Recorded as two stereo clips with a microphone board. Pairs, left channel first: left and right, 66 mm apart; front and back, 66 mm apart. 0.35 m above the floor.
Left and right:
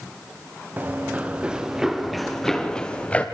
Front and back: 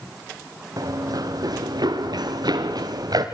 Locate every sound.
0.8 s running footsteps: 150° right, 3 m; by 3.2 s 160° left, 3 m